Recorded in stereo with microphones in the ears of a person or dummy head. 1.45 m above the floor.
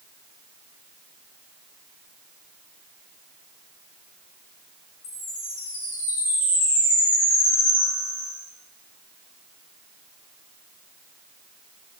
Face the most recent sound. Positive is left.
turn(degrees=65)  # may be behind; listen again after turning